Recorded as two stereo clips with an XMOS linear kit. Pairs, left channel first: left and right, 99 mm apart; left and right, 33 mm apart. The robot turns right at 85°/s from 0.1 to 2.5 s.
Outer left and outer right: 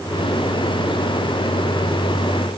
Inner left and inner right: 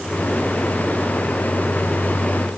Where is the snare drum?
No snare drum in this recording.